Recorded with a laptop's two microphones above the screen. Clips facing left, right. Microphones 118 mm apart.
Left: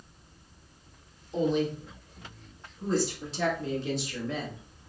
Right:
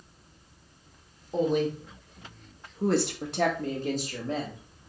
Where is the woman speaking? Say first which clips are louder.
Right 1 dB; 45° right (ahead or behind), 1.2 m; by 4.6 s 30° right (ahead or behind), 1.4 m.